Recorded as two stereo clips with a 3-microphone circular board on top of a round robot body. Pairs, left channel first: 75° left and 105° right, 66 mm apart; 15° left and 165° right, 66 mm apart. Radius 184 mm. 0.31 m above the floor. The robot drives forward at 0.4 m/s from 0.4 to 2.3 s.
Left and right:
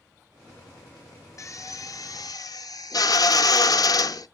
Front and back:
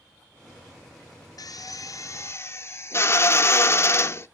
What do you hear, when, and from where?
1.4 s a drill: 35° left, 0.7 m; by 4.3 s 65° left, 0.5 m